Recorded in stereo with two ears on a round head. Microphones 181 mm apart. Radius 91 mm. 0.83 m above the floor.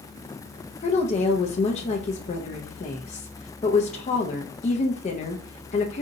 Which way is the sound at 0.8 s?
35° left (ahead or behind).